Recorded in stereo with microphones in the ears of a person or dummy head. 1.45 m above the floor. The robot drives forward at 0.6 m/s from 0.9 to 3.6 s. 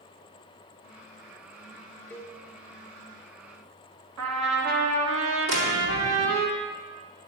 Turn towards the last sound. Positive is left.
turn(degrees=-80)